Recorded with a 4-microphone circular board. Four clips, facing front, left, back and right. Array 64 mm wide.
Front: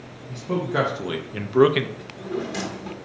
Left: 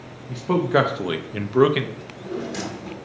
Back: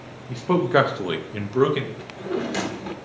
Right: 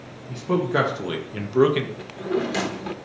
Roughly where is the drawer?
Behind right.